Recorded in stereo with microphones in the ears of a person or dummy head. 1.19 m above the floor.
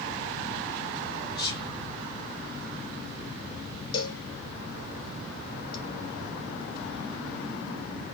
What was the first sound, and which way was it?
Whispering, 25° left (ahead or behind).